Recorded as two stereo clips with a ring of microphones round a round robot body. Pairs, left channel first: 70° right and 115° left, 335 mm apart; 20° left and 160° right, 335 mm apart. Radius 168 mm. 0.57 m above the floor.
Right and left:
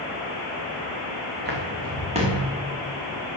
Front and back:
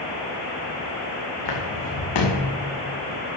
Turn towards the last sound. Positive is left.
turn(degrees=35)